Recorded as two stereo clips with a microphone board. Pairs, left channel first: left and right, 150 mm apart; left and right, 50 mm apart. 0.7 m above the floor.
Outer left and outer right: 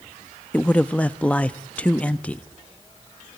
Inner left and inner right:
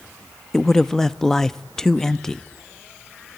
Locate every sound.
0.5 s a man speaking: 10° left (ahead or behind), 0.5 m